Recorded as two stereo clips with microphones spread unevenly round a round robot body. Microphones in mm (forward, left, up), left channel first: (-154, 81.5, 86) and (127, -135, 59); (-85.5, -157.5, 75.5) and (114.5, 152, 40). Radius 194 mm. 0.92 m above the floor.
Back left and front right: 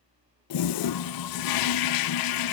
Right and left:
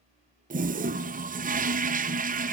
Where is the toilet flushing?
120° left, 0.8 m.